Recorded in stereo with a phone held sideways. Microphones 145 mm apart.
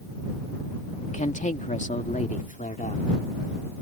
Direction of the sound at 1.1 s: 55° left (ahead or behind).